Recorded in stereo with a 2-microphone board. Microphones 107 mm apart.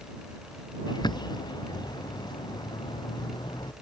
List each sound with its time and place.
0.9 s a bird: 40° left (ahead or behind)